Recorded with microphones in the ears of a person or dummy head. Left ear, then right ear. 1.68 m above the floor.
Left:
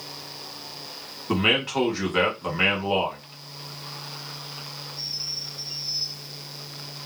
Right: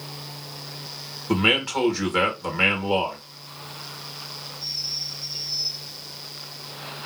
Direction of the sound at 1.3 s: Centre (ahead or behind).